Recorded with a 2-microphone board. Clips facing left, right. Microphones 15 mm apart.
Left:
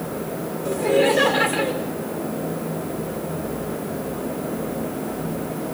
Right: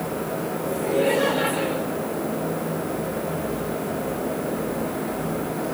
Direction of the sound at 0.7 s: 50° left (ahead or behind).